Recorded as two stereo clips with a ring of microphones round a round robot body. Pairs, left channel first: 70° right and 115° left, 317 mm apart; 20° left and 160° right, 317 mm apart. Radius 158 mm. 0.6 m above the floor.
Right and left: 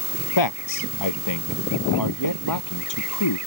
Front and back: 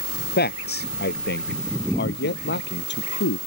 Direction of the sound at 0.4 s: 40° right.